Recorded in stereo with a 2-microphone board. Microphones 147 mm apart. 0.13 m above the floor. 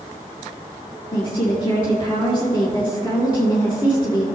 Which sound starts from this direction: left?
A woman speaking, at 1.1 s.